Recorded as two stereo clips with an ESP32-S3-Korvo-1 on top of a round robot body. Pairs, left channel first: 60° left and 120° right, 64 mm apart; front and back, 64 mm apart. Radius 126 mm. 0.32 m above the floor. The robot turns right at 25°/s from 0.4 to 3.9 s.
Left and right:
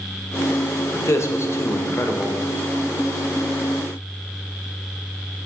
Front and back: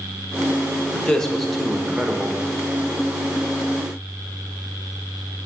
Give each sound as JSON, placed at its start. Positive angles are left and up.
{"t": 0.9, "sound": "a man speaking", "azimuth_deg": 70, "distance_m": 1.3}